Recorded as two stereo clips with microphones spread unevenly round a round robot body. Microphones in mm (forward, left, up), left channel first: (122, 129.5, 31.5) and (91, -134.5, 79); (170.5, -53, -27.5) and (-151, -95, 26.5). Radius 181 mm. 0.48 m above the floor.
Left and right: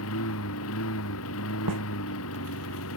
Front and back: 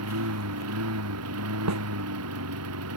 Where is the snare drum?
135° right.